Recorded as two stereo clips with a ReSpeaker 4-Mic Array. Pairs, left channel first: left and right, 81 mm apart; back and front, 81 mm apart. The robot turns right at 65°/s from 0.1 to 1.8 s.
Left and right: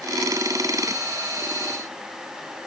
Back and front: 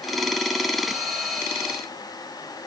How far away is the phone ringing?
I don't hear a phone ringing.